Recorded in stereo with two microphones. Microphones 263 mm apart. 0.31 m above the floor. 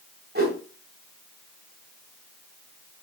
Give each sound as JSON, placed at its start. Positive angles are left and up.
{"t": 0.3, "sound": "a whoosh", "side_deg": -35, "distance_m": 1.7}